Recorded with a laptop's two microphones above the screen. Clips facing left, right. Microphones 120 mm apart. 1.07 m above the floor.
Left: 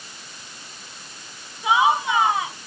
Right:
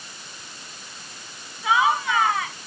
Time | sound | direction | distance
1.6 | laughter | 20° left (ahead or behind) | ?